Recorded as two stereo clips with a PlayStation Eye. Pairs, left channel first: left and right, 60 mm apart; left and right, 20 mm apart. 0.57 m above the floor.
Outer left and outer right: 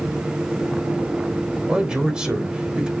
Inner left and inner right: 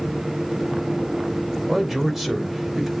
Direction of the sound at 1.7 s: 10° right (ahead or behind).